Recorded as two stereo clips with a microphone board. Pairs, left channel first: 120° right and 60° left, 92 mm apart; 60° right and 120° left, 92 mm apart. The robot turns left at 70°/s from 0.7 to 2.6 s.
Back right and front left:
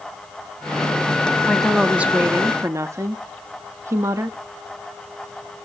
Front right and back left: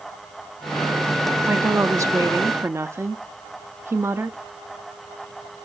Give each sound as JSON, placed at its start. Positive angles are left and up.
{"t": 1.4, "sound": "a woman speaking", "azimuth_deg": 170, "distance_m": 0.6}